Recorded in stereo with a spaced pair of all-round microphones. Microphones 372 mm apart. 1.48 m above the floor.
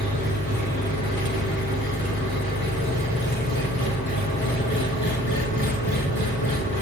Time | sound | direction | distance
0.0 | an engine running | 65° right (ahead or behind) | 8 m